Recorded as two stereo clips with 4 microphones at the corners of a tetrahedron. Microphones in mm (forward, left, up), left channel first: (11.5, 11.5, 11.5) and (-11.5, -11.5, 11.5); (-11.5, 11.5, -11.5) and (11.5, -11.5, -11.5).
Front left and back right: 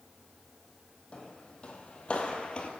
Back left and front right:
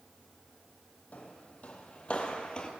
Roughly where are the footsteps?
Left.